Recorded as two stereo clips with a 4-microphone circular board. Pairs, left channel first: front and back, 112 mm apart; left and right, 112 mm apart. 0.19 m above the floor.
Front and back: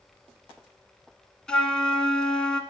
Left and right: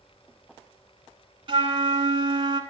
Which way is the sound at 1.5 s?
80° right.